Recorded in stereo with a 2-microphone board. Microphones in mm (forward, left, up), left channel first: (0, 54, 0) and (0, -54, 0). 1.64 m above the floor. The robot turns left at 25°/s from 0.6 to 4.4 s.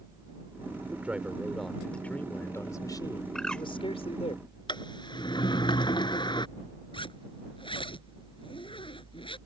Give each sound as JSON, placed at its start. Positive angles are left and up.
{"t": 0.9, "sound": "a man speaking", "azimuth_deg": -165}
{"t": 3.4, "sound": "a bird", "side_deg": 5}
{"t": 4.7, "sound": "a sliding door", "side_deg": 45}
{"t": 6.9, "sound": "a zipper", "side_deg": 50}